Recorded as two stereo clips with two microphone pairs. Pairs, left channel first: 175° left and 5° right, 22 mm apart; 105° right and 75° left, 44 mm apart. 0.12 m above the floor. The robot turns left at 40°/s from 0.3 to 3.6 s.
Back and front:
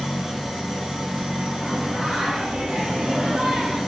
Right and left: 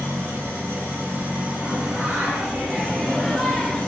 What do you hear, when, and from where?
0.0 s an engine running: 85° left, 2.5 m; by 3.9 s 50° right, 2.5 m
1.6 s singing: 65° left, 1.5 m; by 3.8 s 15° right, 1.5 m